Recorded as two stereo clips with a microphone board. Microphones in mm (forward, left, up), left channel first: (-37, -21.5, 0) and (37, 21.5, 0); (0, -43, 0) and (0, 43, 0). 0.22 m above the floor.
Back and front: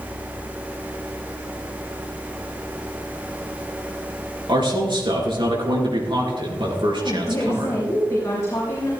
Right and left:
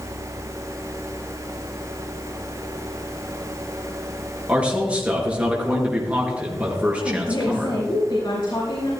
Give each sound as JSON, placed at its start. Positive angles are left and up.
{"t": 4.5, "sound": "a man speaking", "azimuth_deg": 15, "distance_m": 4.0}
{"t": 7.0, "sound": "a woman speaking", "azimuth_deg": -100, "distance_m": 4.0}